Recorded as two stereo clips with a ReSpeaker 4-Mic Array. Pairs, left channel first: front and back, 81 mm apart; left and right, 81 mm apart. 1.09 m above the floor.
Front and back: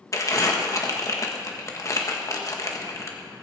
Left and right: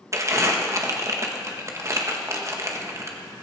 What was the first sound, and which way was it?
Crumpling, 45° right.